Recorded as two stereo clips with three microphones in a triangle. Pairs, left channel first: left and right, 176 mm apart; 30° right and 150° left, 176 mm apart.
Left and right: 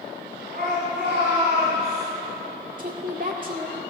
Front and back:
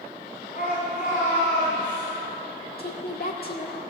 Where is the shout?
65° right, 2.5 m; by 2.0 s 75° right, 3.5 m.